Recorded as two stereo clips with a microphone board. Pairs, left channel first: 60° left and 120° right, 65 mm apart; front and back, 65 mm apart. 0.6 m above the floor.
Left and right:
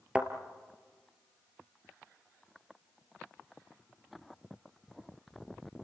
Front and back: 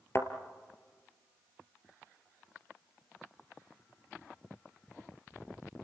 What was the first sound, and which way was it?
A thud, 50° right.